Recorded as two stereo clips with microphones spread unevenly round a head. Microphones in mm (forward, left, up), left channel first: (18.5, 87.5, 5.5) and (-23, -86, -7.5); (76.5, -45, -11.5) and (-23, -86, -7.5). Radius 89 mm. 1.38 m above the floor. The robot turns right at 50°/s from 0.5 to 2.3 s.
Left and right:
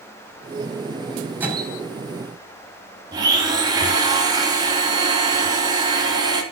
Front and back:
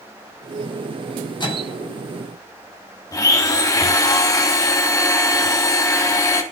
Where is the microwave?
25° right, 5.5 m; by 1.8 s 5° right, 5.5 m.